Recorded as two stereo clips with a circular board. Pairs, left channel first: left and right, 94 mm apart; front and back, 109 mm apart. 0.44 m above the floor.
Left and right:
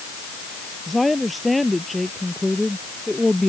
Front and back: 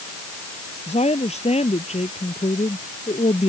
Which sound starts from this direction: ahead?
A woman speaking, at 0.9 s.